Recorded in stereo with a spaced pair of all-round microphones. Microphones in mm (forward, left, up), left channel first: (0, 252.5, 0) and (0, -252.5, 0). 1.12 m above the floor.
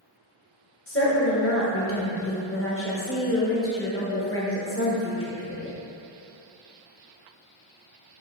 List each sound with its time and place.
0.9 s a woman speaking: 25° left (ahead or behind), 0.7 m